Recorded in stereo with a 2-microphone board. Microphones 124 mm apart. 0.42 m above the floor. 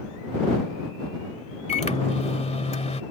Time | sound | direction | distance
1.7 | a microwave | 60° left (ahead or behind) | ?